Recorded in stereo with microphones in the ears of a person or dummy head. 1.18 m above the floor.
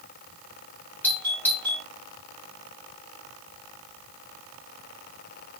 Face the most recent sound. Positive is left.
turn(degrees=5)  # may be behind; listen again after turning